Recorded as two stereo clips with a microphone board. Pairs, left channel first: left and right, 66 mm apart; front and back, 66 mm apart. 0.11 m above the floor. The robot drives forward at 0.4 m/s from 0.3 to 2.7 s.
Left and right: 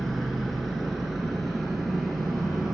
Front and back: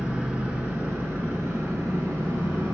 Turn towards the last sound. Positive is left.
turn(degrees=180)